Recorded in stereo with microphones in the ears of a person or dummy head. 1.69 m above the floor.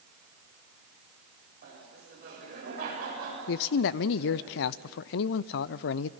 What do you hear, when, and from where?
1.6 s laughter: 45° right (ahead or behind), 7.5 m
3.5 s a man speaking: 60° left (ahead or behind), 0.5 m